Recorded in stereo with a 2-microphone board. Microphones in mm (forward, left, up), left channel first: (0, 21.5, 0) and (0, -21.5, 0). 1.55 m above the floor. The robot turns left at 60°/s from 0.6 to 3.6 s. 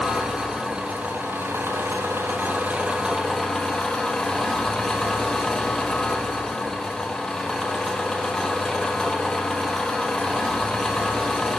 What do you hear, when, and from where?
0.0 s an engine running: 15° right, 1.5 m; by 11.6 s 165° left, 1.5 m